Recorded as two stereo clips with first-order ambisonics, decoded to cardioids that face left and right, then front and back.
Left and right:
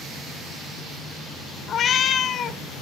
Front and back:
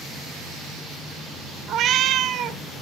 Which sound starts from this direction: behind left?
A cat meowing, at 1.7 s.